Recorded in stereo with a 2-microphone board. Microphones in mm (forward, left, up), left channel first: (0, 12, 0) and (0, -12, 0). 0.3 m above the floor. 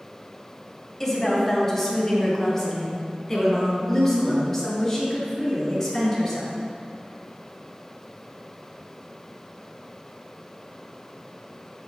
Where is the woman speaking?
10° left (ahead or behind), 2 m; by 6.5 s 15° left (ahead or behind), 4.5 m.